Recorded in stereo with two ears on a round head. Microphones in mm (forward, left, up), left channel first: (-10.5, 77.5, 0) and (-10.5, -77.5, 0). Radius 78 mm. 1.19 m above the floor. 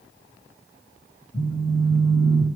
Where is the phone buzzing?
40° left (ahead or behind), 4.5 m.